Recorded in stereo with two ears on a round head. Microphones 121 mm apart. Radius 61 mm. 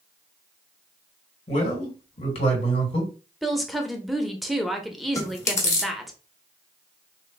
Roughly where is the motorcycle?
I don't hear a motorcycle.